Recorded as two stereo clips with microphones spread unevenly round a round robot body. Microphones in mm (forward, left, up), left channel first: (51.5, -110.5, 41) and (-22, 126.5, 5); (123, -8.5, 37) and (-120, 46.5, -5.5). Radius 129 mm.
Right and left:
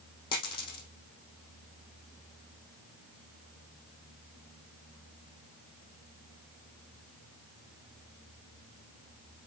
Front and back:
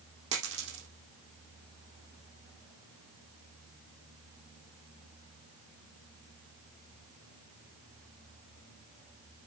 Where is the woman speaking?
I don't hear a woman speaking.